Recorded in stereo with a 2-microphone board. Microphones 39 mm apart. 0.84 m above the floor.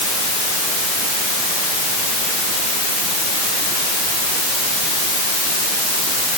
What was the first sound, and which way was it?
Only background noise.